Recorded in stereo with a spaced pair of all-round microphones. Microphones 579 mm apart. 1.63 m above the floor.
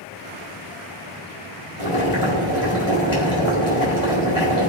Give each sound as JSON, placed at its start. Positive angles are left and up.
{"t": 1.8, "sound": "boiling", "side_deg": 85, "distance_m": 4.5}